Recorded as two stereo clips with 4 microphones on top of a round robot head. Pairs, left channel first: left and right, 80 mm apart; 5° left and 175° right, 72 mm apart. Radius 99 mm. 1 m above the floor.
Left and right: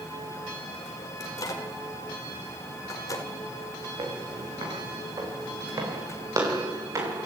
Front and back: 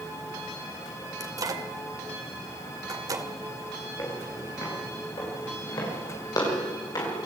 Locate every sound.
1.2 s a microwave: 145° left, 2.5 m
4.0 s footsteps: 50° right, 8 m; by 7.3 s 35° right, 8.5 m